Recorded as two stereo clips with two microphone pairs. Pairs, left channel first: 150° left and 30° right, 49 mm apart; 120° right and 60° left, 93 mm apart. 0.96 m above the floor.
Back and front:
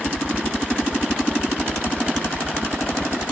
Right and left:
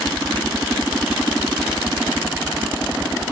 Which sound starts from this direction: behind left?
A helicopter, at 0.0 s.